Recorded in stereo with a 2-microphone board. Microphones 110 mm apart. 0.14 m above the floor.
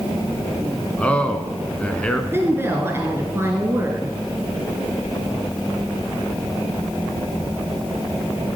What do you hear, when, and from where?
1.0 s a man speaking: 10° left (ahead or behind), 1.1 m
2.3 s a woman speaking: 20° right (ahead or behind), 1.6 m